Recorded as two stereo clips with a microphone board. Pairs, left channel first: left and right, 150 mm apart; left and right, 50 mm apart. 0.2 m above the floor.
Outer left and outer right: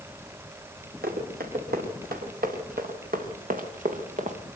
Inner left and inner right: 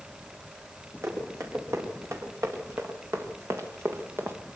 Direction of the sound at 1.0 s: 85° right.